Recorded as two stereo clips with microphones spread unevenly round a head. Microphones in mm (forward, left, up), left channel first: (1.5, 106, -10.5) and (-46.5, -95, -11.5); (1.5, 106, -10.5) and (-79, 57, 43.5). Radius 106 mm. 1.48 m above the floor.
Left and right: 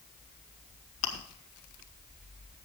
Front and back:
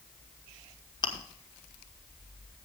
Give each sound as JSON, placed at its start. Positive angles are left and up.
{"t": 1.0, "sound": "chewing", "azimuth_deg": 75, "distance_m": 1.9}